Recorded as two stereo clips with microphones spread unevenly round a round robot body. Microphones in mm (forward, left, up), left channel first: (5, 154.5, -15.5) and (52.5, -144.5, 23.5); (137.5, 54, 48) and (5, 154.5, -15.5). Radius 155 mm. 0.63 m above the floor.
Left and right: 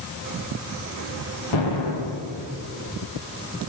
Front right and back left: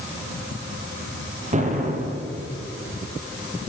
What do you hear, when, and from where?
1.5 s an explosion: 95° left, 3.5 m